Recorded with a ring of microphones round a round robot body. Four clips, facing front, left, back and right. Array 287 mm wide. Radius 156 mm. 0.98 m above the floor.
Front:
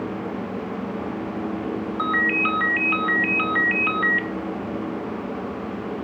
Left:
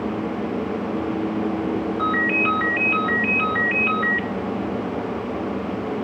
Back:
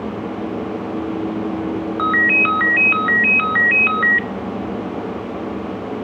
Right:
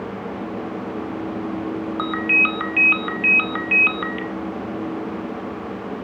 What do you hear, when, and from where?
2.0 s a ringtone: 115° right, 1.1 m